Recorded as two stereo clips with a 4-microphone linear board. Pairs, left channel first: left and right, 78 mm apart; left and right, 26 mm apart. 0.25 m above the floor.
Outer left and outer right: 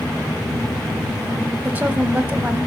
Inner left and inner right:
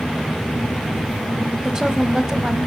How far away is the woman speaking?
About 1.2 m.